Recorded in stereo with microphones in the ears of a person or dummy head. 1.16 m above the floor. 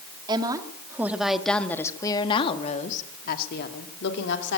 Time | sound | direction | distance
0.3 | a woman speaking | 25° right (ahead or behind) | 2.5 m